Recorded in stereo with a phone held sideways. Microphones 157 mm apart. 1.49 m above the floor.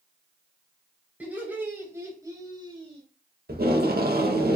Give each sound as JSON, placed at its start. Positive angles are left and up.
{"t": 1.2, "sound": "laughter", "side_deg": -10, "distance_m": 4.0}
{"t": 3.5, "sound": "tape being pulled", "side_deg": -75, "distance_m": 1.7}